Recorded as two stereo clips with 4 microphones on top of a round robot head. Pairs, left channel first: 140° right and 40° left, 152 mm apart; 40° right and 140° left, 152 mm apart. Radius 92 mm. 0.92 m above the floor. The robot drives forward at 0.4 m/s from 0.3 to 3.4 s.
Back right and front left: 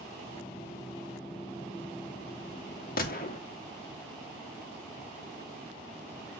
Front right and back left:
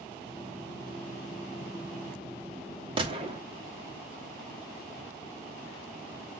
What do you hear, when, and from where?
3.0 s a gunshot: 165° right, 2.5 m